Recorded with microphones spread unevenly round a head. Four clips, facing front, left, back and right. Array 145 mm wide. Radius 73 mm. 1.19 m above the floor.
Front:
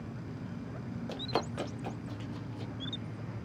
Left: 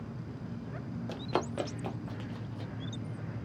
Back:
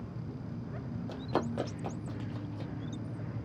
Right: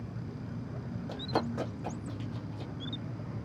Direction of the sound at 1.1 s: 55° left.